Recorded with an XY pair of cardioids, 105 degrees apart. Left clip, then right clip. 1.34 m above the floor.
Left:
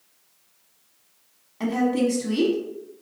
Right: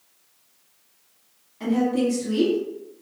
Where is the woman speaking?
70° left, 0.9 m.